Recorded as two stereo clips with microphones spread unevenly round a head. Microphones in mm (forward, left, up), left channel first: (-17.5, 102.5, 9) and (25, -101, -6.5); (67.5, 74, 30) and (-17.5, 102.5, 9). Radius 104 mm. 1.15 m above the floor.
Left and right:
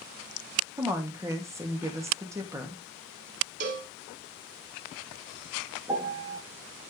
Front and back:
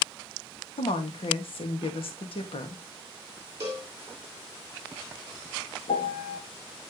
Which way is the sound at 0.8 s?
5° right.